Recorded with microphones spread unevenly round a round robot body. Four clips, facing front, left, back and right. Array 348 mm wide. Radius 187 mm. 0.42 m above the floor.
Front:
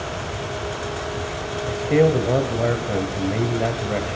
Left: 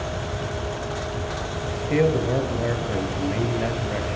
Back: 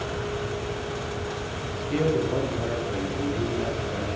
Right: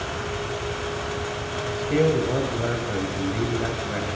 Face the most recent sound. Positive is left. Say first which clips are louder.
# even, front 8 dB
turn(degrees=5)